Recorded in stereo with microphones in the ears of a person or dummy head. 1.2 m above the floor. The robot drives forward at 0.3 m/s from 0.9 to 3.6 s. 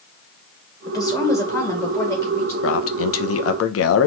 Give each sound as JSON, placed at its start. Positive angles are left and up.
{"t": 0.9, "sound": "a woman speaking", "side_deg": 25, "distance_m": 1.3}
{"t": 2.6, "sound": "a man speaking", "side_deg": 70, "distance_m": 0.9}